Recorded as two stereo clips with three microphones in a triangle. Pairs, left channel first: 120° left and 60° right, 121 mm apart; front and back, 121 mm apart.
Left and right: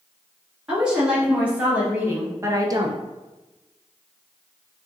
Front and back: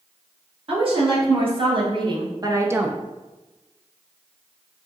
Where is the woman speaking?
145° right, 2.0 m; by 3.0 s 95° right, 0.5 m.